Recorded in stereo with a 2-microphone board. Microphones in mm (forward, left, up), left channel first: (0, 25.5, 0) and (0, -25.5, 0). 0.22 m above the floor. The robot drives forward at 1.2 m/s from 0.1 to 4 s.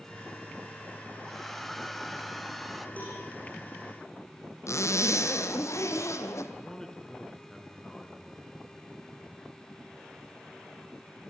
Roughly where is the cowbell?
Left.